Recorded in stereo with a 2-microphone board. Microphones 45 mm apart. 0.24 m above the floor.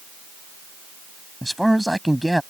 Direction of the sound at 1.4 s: Centre (ahead or behind).